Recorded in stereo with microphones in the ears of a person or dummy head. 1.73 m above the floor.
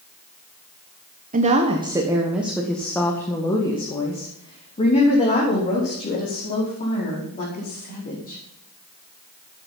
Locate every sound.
1.3 s a woman speaking: 40° right (ahead or behind), 1.4 m; by 8.4 s 45° left (ahead or behind), 6 m